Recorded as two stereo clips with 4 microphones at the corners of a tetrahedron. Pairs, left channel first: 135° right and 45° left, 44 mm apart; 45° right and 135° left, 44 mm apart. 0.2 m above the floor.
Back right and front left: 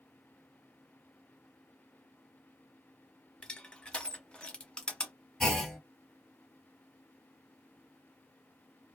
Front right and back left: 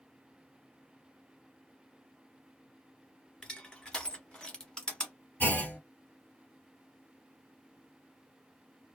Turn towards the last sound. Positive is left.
turn(degrees=-55)